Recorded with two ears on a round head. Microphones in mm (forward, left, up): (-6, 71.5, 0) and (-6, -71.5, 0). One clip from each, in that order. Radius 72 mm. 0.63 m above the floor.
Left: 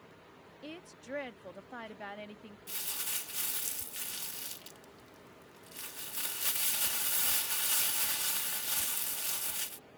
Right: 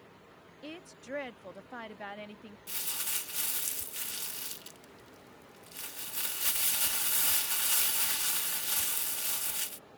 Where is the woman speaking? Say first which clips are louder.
Right 2 dB; 5° right (ahead or behind).